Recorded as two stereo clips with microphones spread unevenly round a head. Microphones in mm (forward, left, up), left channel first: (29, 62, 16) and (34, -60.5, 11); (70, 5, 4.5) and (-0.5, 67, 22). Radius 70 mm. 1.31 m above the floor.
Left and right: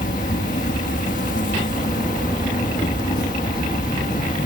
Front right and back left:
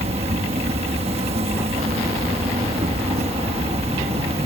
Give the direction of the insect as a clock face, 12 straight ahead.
8 o'clock.